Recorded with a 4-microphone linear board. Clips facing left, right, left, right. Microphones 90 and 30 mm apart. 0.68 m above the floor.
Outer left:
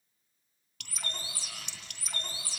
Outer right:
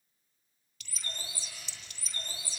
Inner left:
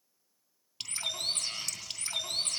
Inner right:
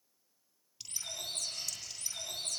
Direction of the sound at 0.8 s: 70° left (ahead or behind).